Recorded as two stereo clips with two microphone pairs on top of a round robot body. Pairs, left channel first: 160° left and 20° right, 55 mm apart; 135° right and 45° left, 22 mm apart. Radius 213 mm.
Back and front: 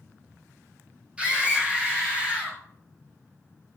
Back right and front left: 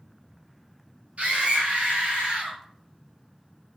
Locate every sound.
1.2 s a scream: 50° left, 3.5 m